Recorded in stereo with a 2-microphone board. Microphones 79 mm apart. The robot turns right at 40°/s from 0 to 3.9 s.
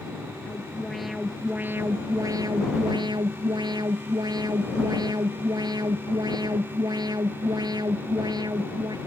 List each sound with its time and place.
0.5 s an alarm: 160° left; by 9.0 s 65° right